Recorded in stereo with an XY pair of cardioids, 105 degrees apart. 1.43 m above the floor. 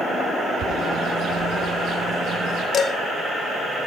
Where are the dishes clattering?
60° left, 1.5 m.